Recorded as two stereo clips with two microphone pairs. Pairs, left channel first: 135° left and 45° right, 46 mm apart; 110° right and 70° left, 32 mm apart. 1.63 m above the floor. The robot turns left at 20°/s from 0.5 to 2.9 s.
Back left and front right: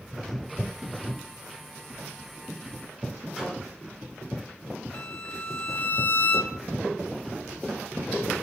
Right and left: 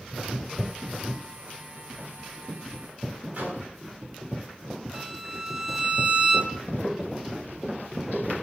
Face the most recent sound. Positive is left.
turn(degrees=115)